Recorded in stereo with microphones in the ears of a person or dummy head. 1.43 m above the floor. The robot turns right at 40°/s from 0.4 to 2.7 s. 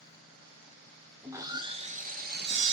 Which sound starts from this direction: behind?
Sawing, at 1.2 s.